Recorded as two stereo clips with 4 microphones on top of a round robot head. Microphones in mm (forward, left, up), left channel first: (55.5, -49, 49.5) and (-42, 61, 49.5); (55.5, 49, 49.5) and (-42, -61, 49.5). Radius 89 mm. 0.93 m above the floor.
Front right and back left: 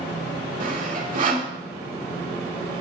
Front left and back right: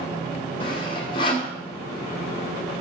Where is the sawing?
105° left, 2.5 m.